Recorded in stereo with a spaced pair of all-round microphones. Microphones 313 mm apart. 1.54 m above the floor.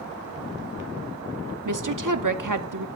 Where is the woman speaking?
75° right (ahead or behind), 0.8 m.